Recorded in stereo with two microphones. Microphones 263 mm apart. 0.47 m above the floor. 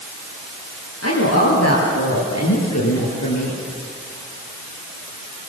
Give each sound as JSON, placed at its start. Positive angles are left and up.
{"t": 1.0, "sound": "a woman speaking", "side_deg": 65, "distance_m": 9.5}